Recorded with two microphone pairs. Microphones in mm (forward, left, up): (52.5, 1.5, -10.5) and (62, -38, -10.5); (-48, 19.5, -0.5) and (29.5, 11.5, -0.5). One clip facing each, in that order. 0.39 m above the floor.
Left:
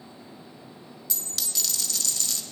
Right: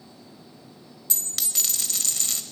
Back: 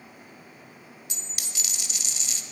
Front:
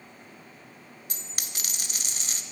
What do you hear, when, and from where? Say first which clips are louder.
1.1 s a dropped coin: right 2 dB, front 1 dB; 40° right, 0.8 m